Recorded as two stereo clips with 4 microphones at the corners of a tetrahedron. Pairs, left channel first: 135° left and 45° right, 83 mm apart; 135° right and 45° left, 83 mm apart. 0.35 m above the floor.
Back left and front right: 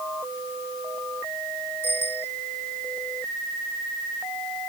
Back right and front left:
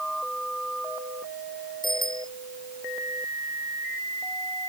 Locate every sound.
1.8 s a bicycle bell: 165° right